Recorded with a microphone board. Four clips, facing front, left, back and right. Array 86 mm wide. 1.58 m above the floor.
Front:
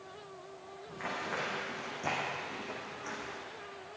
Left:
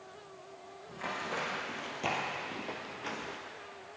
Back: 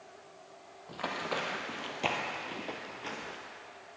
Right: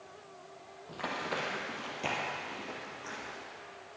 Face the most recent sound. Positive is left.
turn(degrees=130)